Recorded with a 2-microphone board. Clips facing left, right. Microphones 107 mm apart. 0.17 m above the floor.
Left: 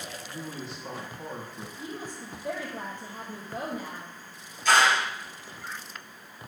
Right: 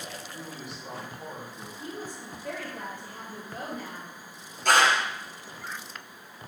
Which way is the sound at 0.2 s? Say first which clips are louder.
Left 2 dB; 30° left (ahead or behind).